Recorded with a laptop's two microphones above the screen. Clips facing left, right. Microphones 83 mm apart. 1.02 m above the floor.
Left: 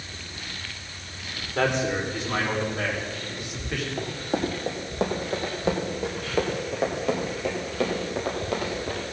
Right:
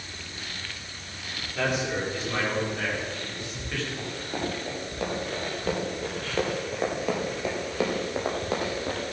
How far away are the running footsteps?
About 2.5 m.